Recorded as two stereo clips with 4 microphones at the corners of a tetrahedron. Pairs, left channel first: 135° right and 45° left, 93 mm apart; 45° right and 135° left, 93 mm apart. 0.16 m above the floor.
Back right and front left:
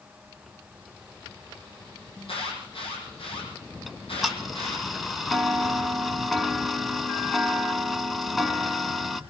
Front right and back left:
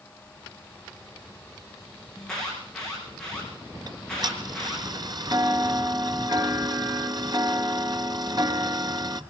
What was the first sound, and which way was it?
An alarm, 125° right.